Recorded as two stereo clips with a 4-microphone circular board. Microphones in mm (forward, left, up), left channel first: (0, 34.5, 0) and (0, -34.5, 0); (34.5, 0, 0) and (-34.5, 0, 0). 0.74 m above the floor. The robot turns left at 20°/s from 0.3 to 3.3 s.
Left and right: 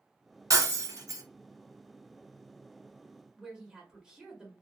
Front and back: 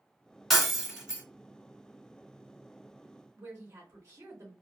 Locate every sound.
0.5 s breaking glass: 90° right, 0.7 m; by 1.2 s 105° right, 0.7 m
3.4 s a woman speaking: 165° right, 0.8 m